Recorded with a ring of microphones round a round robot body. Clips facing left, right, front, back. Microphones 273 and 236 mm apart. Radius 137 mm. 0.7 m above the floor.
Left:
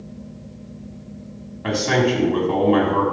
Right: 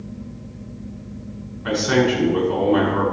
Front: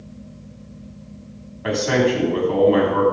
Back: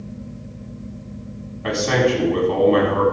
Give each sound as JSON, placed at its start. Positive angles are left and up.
{"t": 1.6, "sound": "a man speaking", "azimuth_deg": 85, "distance_m": 6.5}